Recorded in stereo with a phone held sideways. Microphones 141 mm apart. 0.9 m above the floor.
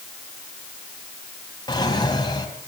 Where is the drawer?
30° left (ahead or behind), 3 m.